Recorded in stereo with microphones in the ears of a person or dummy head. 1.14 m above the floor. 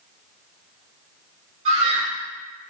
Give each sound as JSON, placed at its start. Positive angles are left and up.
{"t": 1.6, "sound": "a scream", "side_deg": -40, "distance_m": 3.5}